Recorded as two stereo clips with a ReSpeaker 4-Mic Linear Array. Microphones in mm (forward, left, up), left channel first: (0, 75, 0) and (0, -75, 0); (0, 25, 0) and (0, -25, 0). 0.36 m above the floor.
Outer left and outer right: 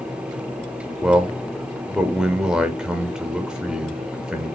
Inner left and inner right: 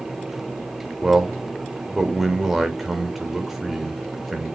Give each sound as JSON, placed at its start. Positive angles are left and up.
{"t": 1.0, "sound": "a man speaking", "side_deg": -5, "distance_m": 0.8}